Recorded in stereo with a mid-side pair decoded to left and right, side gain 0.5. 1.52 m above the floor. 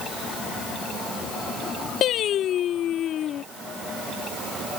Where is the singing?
60° left.